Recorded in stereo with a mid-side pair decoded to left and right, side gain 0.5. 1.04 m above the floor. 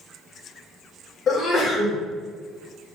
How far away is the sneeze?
About 1.3 m.